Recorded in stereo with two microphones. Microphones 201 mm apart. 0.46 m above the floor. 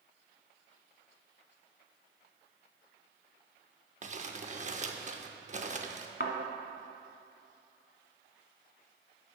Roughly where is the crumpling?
Right.